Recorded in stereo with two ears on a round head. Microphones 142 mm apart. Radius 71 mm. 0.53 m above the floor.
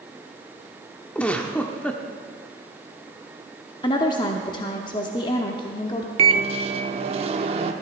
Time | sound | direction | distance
1.1 | a giggle | 5° left (ahead or behind) | 0.8 m
3.8 | a woman speaking | 30° left (ahead or behind) | 0.9 m
6.2 | a microwave | 35° right (ahead or behind) | 0.9 m